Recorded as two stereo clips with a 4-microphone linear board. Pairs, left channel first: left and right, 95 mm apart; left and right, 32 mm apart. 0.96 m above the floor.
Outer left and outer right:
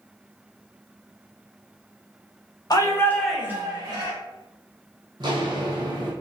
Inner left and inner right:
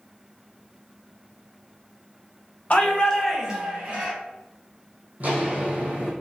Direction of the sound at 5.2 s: 50° right (ahead or behind).